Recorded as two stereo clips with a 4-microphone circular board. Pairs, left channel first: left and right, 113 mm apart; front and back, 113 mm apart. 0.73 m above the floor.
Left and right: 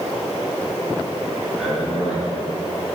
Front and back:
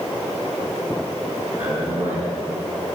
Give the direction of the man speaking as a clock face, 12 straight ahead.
6 o'clock.